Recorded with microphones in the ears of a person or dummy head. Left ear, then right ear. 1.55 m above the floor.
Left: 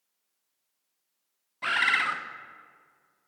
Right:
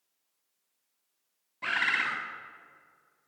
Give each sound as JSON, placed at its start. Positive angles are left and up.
{"t": 1.6, "sound": "a bird", "side_deg": 15, "distance_m": 0.6}